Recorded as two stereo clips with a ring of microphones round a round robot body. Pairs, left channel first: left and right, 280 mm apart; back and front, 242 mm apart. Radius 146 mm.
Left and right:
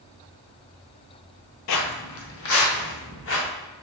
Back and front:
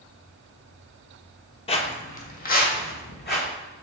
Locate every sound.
1.7 s footsteps: 115° left, 0.6 m; by 3.5 s 135° left, 1.7 m